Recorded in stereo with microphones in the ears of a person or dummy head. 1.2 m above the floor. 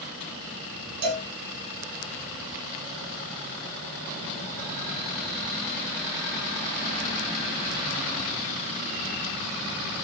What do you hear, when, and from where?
1.0 s a cowbell: 55° right (ahead or behind), 2.5 m